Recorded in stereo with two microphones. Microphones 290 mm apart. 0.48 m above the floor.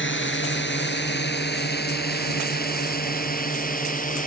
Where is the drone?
40° left (ahead or behind); by 4.3 s 30° left (ahead or behind).